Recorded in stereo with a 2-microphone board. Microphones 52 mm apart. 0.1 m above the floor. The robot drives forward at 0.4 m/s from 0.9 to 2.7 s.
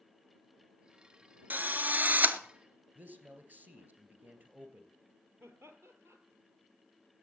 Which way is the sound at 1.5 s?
35° right (ahead or behind).